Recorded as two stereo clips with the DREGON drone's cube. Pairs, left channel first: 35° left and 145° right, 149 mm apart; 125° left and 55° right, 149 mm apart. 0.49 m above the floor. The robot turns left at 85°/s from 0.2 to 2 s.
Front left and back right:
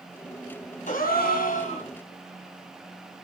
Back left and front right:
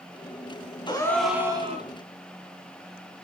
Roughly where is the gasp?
Left.